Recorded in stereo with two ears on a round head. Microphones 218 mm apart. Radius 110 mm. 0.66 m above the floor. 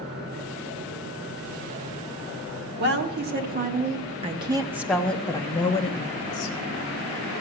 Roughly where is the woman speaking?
Right.